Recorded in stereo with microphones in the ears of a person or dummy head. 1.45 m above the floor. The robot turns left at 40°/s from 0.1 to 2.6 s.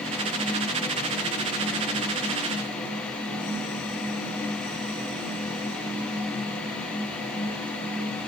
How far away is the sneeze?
I don't hear a sneeze.